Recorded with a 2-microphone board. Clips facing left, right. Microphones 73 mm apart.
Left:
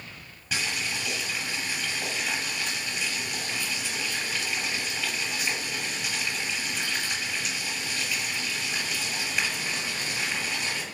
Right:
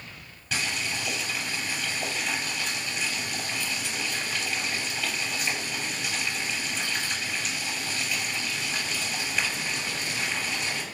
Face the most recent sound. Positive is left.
turn(degrees=10)  # may be behind; listen again after turning